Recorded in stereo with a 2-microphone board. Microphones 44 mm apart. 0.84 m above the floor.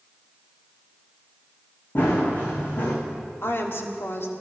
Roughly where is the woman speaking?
Left.